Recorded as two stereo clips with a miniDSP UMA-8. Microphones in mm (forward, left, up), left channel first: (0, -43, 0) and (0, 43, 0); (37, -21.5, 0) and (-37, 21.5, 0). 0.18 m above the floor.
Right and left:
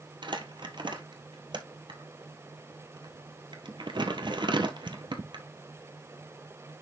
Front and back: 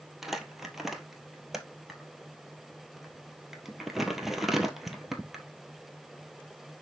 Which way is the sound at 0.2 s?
65° left.